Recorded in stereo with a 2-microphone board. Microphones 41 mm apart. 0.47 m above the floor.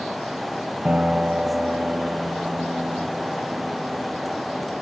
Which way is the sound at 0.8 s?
25° right (ahead or behind).